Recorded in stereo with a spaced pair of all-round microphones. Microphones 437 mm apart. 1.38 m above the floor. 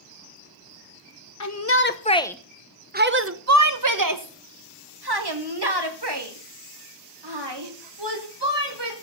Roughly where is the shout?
Left.